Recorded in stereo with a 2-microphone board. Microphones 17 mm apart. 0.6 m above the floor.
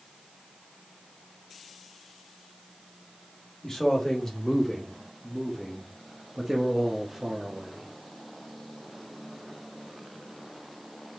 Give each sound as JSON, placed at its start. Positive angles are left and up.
{"t": 3.6, "sound": "a man speaking", "side_deg": 30, "distance_m": 1.8}